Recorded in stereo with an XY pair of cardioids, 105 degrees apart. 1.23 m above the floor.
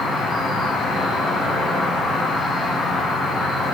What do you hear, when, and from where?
0.0 s an insect: 55° left, 0.8 m